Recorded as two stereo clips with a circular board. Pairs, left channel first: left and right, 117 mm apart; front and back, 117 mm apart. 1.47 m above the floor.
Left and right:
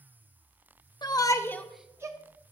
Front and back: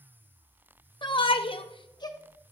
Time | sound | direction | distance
1.0 | a shout | 45° left | 0.8 m